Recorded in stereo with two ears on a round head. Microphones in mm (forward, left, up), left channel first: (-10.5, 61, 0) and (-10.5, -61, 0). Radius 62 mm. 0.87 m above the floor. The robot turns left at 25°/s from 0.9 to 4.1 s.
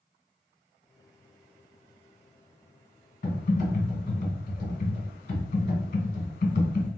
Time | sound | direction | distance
3.2 | typing on a keyboard | 75° left (ahead or behind) | 1.9 m